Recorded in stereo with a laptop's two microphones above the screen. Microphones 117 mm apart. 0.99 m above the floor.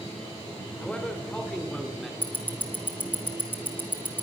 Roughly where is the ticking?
Centre.